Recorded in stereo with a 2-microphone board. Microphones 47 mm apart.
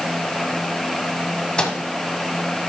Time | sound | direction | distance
1.6 | a microwave | 15° left (ahead or behind) | 1.0 m